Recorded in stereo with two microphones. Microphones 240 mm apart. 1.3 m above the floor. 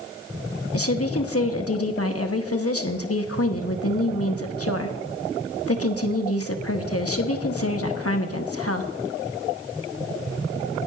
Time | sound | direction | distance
0.7 | a woman speaking | 70° left (ahead or behind) | 1.1 m